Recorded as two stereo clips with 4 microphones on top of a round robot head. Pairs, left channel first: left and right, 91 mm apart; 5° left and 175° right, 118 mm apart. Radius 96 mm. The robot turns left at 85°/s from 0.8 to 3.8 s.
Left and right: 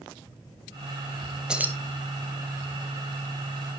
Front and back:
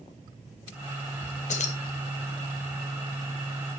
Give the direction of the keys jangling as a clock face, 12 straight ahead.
12 o'clock.